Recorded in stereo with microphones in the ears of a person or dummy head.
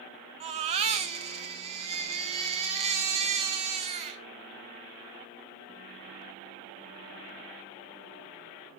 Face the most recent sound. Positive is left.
turn(degrees=-30)  # may be behind; listen again after turning